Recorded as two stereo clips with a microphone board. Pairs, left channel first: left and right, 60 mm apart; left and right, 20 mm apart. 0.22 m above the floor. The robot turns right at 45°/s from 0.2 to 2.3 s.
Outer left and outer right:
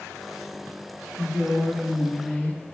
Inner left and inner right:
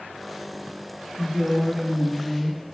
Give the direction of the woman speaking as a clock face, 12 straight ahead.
1 o'clock.